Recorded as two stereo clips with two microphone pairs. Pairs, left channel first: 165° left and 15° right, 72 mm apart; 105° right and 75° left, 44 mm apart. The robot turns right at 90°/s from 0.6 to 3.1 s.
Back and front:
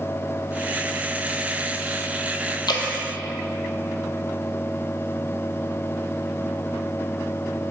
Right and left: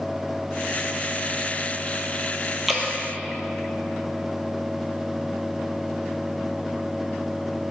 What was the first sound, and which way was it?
Dripping, 165° left.